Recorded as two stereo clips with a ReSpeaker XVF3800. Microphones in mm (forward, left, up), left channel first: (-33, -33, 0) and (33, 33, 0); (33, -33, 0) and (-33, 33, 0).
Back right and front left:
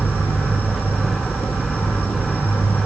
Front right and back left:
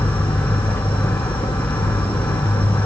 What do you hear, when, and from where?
0.0 s an insect: 65° right, 2.0 m